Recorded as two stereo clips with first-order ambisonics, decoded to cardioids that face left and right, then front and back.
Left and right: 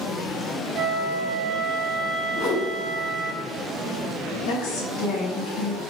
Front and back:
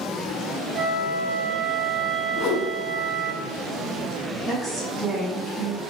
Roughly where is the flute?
Behind right.